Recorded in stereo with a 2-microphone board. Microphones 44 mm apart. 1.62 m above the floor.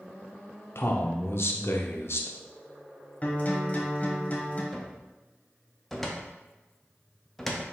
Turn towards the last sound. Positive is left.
turn(degrees=5)  # may be behind; listen again after turning